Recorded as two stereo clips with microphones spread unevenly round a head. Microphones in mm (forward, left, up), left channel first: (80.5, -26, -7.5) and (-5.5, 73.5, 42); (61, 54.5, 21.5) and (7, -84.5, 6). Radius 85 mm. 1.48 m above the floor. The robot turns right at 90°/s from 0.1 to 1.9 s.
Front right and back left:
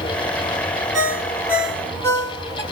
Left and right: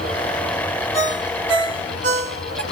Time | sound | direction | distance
0.9 | a ringtone | 130° left | 0.7 m